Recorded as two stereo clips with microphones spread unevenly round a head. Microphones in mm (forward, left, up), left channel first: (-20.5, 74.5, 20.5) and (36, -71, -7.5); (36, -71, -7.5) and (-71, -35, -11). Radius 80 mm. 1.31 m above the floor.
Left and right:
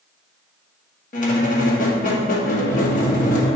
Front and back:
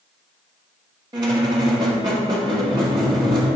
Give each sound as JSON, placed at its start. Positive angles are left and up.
{"t": 1.1, "sound": "a squeak", "azimuth_deg": 105, "distance_m": 1.1}